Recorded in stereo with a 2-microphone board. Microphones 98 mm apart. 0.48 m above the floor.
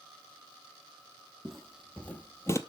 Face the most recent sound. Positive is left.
turn(degrees=30)  # may be behind; listen again after turning